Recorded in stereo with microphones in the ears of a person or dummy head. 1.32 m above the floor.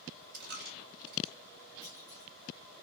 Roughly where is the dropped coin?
Right.